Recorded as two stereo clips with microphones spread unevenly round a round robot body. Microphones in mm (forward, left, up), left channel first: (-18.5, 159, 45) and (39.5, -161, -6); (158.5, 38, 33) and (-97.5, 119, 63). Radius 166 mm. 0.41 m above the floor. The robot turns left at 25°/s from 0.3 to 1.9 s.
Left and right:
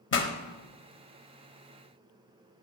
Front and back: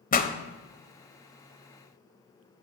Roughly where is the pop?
Ahead left.